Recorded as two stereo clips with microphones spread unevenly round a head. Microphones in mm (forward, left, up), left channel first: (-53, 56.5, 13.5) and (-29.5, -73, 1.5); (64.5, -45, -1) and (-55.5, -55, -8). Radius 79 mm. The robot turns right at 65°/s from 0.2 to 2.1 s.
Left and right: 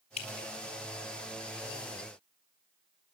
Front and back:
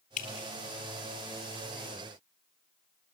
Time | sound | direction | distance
0.2 | dripping | 50° left | 3 m